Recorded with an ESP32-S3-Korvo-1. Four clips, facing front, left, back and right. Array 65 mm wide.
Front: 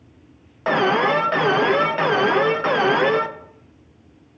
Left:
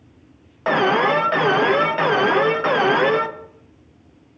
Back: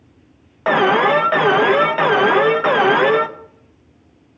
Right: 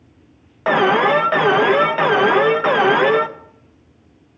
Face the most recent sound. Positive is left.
turn(degrees=-150)